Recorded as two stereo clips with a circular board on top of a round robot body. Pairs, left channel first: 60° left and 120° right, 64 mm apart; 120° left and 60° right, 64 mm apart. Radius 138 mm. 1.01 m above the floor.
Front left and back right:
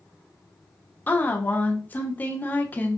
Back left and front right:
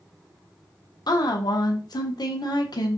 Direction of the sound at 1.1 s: 125° left.